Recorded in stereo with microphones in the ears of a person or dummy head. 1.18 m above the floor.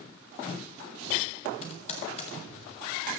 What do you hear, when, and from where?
1.6 s typing on a keyboard: 40° left (ahead or behind), 1.5 m